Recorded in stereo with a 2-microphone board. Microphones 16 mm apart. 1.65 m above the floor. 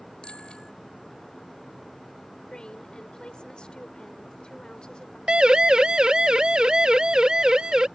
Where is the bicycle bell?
80° left.